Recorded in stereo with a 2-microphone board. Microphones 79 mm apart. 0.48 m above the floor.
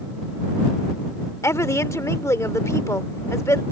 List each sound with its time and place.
1.4 s a woman speaking: 40° left (ahead or behind)